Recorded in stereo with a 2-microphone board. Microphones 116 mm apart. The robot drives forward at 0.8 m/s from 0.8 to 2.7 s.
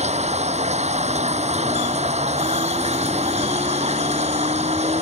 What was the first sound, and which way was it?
Running water, 75° right (ahead or behind).